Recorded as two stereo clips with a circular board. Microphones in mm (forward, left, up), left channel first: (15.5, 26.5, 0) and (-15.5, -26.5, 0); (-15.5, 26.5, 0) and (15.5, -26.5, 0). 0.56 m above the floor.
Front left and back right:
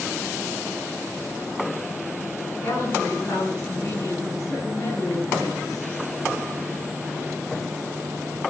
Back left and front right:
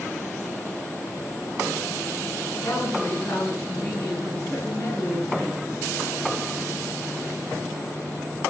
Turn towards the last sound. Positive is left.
turn(degrees=75)